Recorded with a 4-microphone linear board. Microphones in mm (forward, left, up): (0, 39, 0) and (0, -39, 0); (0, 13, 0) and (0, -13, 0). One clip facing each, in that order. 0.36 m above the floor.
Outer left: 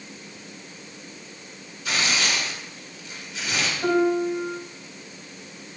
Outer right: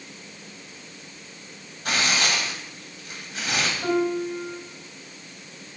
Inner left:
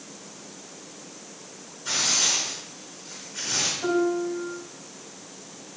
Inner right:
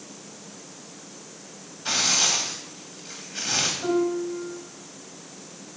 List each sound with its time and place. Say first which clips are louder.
1.9 s tearing paper: outer right 1 dB, inner right 2 dB; 55° right (ahead or behind), 2.0 m
3.8 s a piano: outer left 4 dB, even; 10° left (ahead or behind), 1.4 m